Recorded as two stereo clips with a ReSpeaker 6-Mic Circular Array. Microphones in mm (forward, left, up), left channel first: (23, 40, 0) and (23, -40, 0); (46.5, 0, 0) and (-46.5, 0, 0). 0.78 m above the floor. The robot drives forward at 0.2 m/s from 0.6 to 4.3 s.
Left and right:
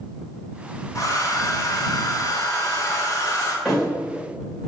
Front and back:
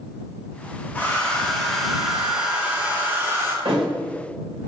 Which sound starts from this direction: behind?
A thud, at 3.6 s.